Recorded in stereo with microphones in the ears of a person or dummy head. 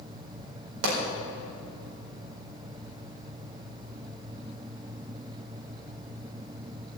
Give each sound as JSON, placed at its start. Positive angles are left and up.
{"t": 0.8, "sound": "a pop", "side_deg": -85, "distance_m": 4.0}